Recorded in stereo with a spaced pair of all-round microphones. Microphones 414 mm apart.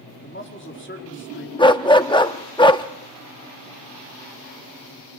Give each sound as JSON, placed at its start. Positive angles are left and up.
{"t": 0.2, "sound": "a man speaking", "side_deg": 30, "distance_m": 4.5}
{"t": 1.6, "sound": "a dog barking", "side_deg": 10, "distance_m": 1.1}